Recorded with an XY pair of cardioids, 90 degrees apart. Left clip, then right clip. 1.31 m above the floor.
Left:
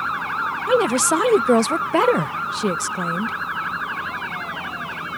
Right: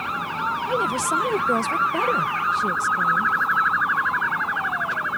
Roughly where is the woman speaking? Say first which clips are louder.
Left 7 dB; ahead left.